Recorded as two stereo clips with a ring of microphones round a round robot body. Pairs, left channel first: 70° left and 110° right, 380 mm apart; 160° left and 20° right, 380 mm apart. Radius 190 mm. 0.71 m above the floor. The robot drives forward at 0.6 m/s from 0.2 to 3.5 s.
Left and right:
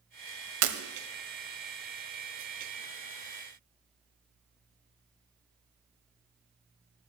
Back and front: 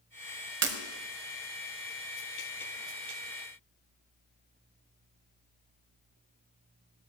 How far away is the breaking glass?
About 1.2 m.